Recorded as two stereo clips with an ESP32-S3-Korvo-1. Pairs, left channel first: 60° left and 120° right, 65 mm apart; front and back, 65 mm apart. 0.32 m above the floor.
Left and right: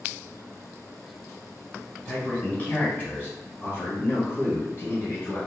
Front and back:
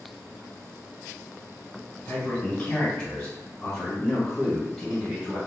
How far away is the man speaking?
About 1.6 m.